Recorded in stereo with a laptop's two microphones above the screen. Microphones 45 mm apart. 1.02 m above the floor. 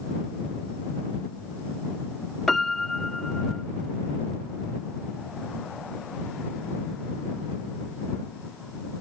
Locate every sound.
2.5 s a piano: 5° left (ahead or behind)